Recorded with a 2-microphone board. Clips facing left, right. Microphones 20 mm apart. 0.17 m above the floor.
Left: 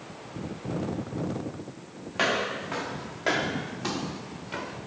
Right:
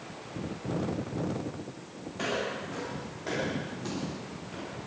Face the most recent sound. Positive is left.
turn(degrees=60)  # may be behind; listen again after turning